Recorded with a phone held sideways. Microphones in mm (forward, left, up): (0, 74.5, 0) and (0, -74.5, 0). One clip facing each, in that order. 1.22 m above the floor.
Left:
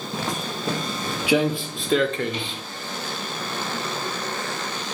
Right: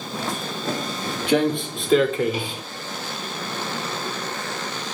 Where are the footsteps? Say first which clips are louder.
Even; 20° left (ahead or behind), 1.8 m; by 2.6 s 15° right (ahead or behind), 1.2 m.